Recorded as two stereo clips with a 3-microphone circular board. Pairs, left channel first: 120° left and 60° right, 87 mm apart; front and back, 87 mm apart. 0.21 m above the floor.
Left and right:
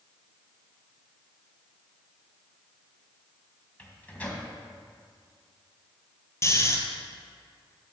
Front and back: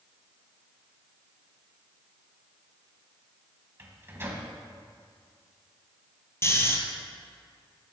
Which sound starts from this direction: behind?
A microwave, at 3.8 s.